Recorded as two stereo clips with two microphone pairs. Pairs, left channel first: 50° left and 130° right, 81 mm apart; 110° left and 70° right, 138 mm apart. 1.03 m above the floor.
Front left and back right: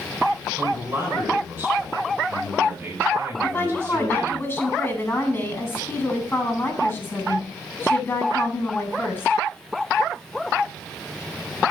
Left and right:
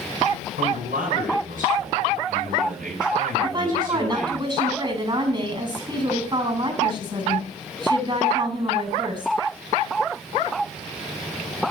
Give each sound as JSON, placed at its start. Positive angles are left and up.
{"t": 0.6, "sound": "a man speaking", "azimuth_deg": -70, "distance_m": 8.5}
{"t": 3.4, "sound": "a woman speaking", "azimuth_deg": -15, "distance_m": 8.5}